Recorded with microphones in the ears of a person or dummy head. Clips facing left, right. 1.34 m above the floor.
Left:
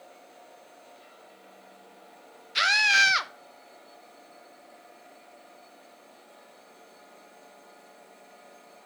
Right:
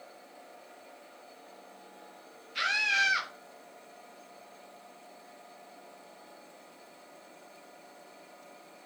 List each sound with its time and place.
2.5 s a scream: 70° left (ahead or behind), 1.0 m